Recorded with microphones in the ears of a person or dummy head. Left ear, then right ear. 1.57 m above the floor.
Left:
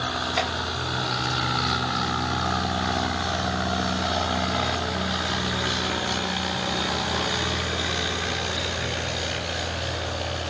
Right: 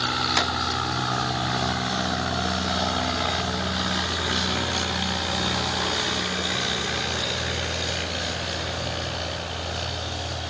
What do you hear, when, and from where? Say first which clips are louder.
0.4 s tapping: right 1 dB; 80° right, 3 m